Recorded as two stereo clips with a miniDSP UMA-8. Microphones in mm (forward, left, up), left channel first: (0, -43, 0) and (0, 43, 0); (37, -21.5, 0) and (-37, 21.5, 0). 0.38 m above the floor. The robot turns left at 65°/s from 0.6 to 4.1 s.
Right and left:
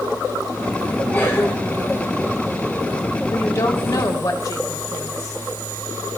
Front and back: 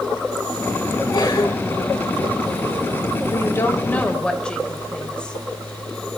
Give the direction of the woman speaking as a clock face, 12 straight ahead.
2 o'clock.